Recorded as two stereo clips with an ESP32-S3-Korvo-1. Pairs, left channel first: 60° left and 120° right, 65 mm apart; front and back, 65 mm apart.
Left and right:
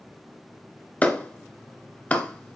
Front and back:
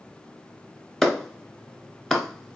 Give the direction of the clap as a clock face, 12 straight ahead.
9 o'clock.